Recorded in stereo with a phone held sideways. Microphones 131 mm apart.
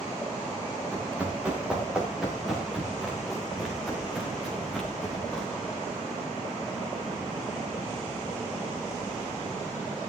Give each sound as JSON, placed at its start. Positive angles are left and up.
{"t": 0.9, "sound": "running footsteps", "side_deg": -10, "distance_m": 8.5}